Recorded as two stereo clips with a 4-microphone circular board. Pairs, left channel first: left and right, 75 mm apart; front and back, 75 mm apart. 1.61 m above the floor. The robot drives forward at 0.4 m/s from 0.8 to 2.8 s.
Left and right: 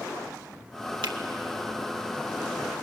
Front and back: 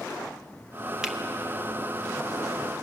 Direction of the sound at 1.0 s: 95° right.